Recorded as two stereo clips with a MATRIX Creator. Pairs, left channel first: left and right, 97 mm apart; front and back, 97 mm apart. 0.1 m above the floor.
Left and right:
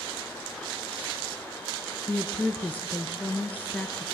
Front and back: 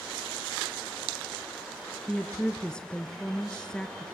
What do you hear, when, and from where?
2.1 s a woman speaking: 65° left, 1.2 m